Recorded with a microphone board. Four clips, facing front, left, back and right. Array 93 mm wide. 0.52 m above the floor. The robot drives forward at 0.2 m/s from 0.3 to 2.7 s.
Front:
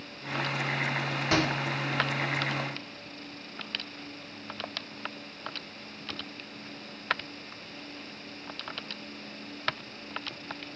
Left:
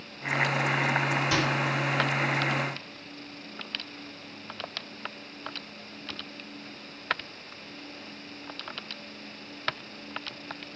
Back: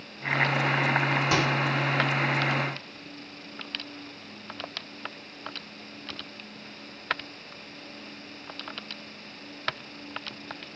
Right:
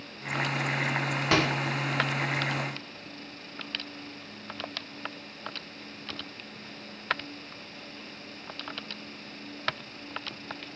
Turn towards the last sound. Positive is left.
turn(degrees=-115)